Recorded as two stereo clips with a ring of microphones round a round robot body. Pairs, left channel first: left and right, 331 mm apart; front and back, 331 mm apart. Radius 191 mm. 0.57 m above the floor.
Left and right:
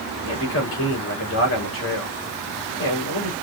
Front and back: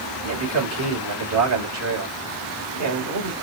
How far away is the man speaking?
About 2.5 m.